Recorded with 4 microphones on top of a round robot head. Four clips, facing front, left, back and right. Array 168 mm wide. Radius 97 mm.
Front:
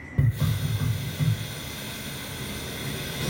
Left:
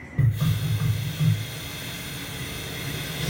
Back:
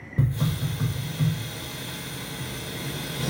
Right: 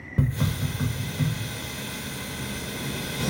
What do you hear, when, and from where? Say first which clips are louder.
0.2 s a hiss: even, back 1 dB; 95° right, 0.6 m